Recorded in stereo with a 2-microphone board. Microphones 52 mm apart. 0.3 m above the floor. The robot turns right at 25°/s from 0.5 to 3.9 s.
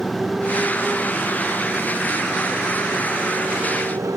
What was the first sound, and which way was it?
A motorcycle, 5° right (ahead or behind).